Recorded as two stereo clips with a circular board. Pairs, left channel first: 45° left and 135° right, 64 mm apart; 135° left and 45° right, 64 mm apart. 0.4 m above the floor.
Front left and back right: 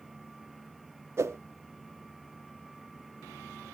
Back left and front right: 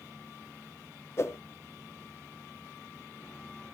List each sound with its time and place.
1.2 s a whoosh: straight behind, 0.5 m